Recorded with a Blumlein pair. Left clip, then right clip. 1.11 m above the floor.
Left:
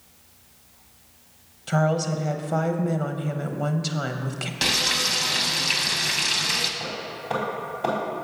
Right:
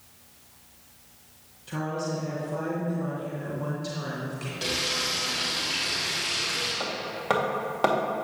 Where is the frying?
30° left, 1.1 m.